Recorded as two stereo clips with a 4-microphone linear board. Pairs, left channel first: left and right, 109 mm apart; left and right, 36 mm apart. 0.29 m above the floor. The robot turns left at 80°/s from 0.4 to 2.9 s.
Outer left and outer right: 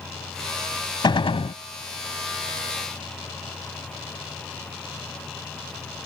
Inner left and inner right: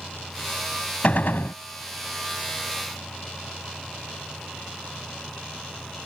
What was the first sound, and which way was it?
A gunshot, 130° left.